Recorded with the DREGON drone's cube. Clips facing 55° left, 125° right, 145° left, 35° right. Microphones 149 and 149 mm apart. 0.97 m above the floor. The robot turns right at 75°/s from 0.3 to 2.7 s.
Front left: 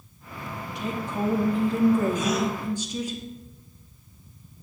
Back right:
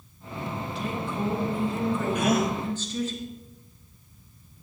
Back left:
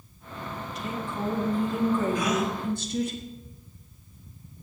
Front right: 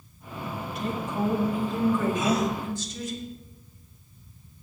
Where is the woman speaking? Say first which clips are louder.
Front left 3 dB, front right 4 dB; 15° right, 1.8 m; by 3.1 s 130° left, 1.8 m.